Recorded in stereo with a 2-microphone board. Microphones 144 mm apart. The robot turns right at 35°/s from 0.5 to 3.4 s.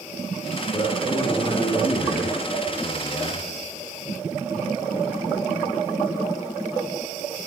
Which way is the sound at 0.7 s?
40° left.